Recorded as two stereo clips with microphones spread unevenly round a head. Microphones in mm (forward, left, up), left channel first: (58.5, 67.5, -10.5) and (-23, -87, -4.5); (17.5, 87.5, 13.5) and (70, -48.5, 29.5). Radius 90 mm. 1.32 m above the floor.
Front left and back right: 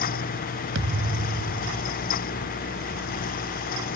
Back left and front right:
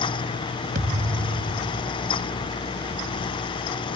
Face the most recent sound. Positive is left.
turn(degrees=-110)